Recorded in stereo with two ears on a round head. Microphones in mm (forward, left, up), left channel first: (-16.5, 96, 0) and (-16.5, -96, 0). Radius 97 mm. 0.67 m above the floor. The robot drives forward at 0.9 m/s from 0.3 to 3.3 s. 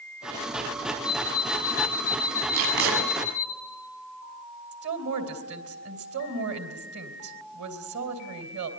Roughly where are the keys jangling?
No keys jangling in this recording.